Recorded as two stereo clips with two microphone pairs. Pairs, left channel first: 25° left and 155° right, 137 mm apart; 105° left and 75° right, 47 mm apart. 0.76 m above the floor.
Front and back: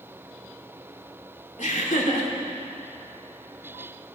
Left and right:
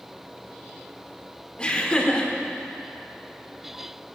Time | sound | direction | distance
1.6 | laughter | 40° left | 2.5 m